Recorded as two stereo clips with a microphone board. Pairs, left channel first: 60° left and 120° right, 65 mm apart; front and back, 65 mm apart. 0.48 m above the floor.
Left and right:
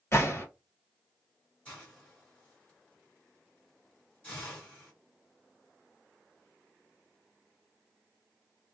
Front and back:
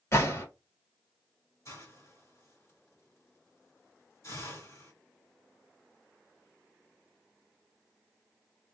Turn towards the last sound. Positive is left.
turn(degrees=0)